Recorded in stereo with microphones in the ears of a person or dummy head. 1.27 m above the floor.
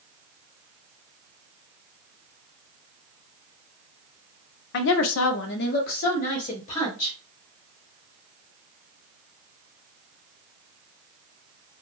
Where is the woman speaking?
60° left (ahead or behind), 0.5 m; by 7.2 s 35° left (ahead or behind), 1.8 m.